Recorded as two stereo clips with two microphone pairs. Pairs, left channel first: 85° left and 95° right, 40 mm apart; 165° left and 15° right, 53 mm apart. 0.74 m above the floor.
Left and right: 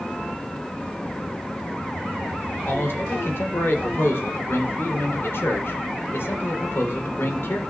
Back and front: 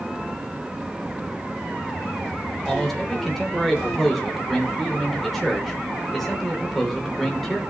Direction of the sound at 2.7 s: 80° left.